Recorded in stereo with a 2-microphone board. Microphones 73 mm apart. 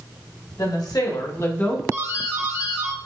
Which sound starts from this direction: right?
A doorbell, at 1.9 s.